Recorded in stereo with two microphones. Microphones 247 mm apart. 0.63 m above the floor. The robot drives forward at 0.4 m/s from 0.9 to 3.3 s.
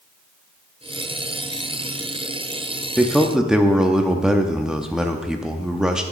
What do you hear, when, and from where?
3.0 s a man speaking: centre (ahead or behind), 0.8 m; by 6.0 s 5° right (ahead or behind), 0.7 m